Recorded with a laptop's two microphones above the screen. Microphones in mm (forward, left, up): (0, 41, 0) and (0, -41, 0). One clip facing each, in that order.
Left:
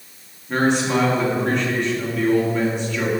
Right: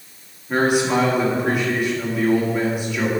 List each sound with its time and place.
0.5 s a man speaking: 10° right (ahead or behind), 1.8 m